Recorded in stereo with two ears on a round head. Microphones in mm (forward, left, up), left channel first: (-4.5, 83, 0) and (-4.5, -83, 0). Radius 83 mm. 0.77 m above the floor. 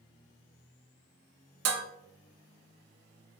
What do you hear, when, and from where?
1.6 s dishes clattering: 65° right (ahead or behind), 0.6 m